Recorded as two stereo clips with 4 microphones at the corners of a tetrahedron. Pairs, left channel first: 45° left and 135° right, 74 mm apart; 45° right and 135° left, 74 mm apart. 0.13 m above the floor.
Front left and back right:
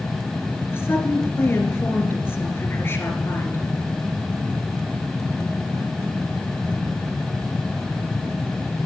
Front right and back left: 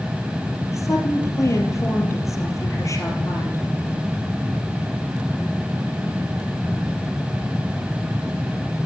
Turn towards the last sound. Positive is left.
turn(degrees=-10)